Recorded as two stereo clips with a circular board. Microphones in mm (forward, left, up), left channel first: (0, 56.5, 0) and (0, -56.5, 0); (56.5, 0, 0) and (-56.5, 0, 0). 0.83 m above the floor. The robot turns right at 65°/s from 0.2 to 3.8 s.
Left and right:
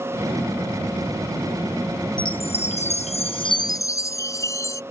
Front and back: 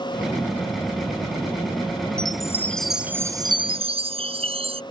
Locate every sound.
2.2 s a chime: 45° left; by 4.8 s 150° left